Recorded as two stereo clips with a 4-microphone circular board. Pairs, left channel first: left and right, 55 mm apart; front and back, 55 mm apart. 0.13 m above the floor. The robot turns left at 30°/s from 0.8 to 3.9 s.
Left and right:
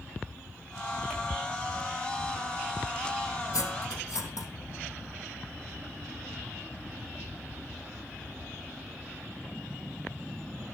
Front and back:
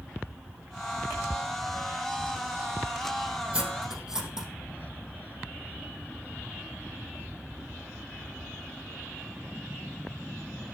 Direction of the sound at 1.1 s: 175° left.